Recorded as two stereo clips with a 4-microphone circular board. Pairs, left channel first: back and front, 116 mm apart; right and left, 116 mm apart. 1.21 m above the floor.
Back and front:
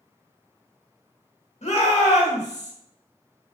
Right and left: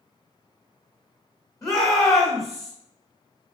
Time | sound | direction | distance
1.6 | a shout | 155° right | 1.1 m